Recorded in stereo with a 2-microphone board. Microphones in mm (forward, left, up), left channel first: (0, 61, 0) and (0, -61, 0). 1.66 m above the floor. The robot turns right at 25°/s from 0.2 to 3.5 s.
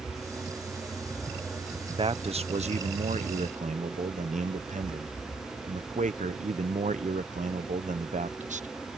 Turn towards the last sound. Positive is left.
turn(degrees=-95)